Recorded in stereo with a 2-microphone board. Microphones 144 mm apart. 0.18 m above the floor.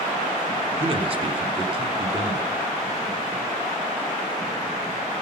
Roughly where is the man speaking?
Right.